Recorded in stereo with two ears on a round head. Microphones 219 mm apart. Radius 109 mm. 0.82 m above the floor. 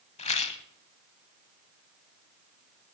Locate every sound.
0.2 s a rattle: 25° left (ahead or behind), 0.9 m